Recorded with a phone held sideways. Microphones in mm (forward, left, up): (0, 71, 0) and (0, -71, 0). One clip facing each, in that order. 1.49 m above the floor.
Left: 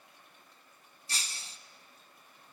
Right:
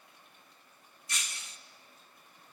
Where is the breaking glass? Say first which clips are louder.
Even; 30° left (ahead or behind), 0.8 m.